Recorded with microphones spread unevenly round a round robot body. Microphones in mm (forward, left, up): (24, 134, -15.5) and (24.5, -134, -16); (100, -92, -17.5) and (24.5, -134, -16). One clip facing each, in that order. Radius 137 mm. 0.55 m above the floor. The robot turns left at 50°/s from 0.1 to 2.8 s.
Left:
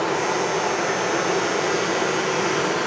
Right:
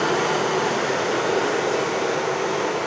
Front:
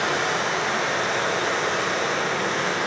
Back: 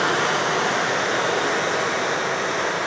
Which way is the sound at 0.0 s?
120° right.